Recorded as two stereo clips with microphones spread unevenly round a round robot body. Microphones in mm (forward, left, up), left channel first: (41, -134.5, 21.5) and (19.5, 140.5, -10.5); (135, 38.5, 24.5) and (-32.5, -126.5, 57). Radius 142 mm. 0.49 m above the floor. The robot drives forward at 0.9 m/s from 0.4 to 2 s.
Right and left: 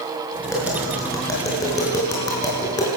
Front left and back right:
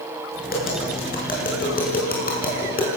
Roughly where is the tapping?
Ahead.